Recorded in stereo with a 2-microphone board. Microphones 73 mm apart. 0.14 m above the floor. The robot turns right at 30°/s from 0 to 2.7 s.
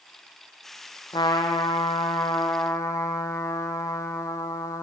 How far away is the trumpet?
About 1.7 m.